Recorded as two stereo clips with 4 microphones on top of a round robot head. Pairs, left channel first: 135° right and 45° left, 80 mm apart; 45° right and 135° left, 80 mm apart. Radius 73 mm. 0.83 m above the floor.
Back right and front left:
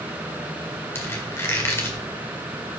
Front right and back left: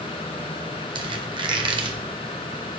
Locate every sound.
0.9 s a squeak: 160° left, 1.8 m